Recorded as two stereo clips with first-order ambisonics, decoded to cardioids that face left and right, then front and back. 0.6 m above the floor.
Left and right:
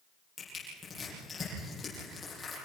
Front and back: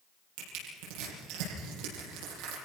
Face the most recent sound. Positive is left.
turn(degrees=165)